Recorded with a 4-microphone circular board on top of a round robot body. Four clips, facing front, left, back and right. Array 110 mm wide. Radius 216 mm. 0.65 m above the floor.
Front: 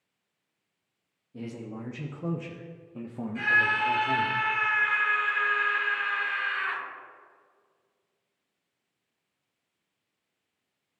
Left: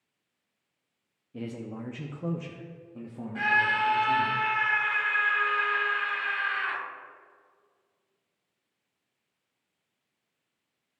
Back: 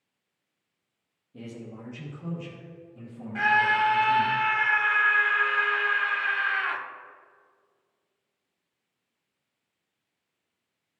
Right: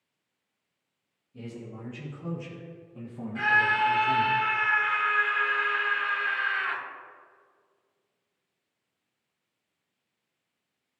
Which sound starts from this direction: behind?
A scream, at 3.4 s.